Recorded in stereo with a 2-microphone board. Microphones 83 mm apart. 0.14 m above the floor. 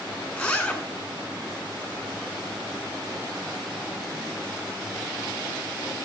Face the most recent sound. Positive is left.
turn(degrees=15)  # may be behind; listen again after turning